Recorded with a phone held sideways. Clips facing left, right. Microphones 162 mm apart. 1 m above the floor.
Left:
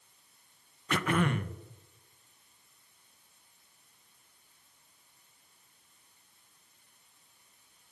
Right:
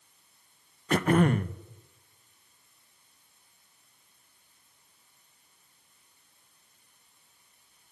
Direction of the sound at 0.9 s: 40° right (ahead or behind).